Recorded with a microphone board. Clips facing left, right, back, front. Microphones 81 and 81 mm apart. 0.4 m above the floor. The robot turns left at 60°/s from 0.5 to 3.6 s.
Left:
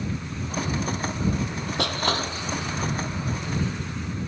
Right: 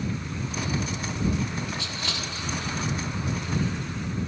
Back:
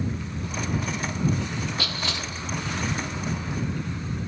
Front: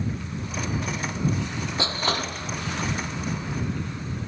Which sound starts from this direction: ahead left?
Crushing, at 1.8 s.